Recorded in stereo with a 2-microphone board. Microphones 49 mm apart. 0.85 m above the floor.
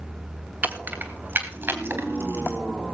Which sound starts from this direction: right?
Keys jangling, at 0.6 s.